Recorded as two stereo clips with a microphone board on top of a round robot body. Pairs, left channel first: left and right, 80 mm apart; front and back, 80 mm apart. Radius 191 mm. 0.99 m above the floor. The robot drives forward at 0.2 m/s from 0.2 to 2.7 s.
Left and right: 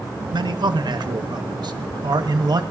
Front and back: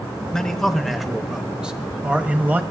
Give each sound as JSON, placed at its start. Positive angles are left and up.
{"t": 0.3, "sound": "a man speaking", "azimuth_deg": -80, "distance_m": 1.0}